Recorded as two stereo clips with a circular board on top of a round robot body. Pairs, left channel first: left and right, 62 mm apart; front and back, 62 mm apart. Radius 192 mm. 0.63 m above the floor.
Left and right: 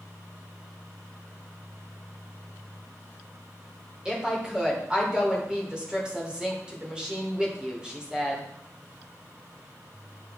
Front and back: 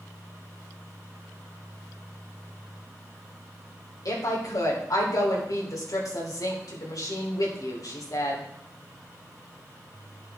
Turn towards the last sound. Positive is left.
turn(degrees=-15)